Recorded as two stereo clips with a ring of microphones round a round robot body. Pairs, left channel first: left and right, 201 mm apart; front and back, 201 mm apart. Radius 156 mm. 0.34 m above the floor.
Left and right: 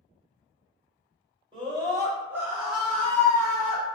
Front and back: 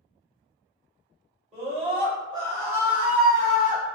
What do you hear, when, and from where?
1.5 s a scream: 140° right, 1.5 m; by 3.9 s 70° left, 1.3 m